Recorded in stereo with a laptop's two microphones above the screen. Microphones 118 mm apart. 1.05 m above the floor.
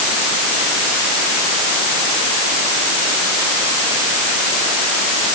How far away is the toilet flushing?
No toilet flushing in this recording.